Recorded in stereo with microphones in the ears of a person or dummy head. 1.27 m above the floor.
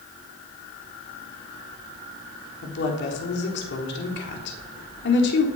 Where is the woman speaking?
65° left (ahead or behind), 4 m.